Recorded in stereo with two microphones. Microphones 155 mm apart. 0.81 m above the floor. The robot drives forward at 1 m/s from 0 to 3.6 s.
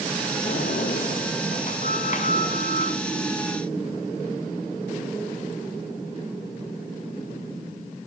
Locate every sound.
0.5 s a sliding door: 70° left (ahead or behind), 5 m; by 3.0 s 50° left (ahead or behind), 6.5 m